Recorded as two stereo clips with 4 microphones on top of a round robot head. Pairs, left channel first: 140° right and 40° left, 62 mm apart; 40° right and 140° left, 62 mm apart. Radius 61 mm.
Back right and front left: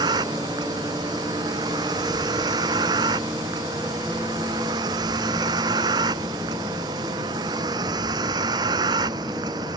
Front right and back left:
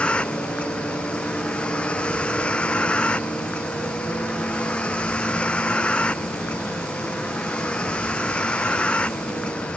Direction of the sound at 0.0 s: 30° left.